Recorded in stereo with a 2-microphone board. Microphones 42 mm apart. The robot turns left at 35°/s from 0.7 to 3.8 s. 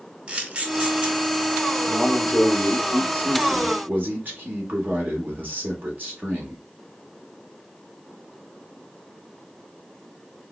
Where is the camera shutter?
25° right (ahead or behind), 0.9 m; by 1.2 s 20° right (ahead or behind), 0.9 m.